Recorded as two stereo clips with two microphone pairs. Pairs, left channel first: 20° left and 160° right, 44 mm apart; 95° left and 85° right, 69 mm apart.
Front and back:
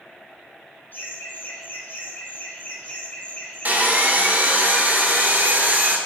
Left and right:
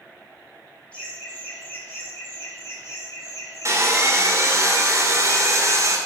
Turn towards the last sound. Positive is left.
turn(degrees=-120)